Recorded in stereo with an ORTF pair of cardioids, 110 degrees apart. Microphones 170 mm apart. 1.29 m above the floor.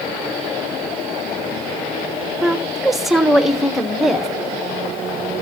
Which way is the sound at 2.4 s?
Straight ahead.